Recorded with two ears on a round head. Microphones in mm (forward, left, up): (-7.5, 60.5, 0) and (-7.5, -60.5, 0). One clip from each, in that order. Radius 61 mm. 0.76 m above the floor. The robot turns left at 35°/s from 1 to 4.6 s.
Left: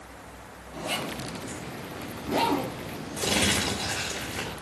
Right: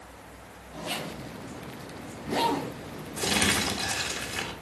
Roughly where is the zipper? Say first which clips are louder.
Left 3 dB; centre.